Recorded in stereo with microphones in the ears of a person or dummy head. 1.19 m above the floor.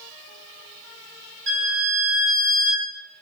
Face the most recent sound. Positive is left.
turn(degrees=-50)  # may be behind; listen again after turning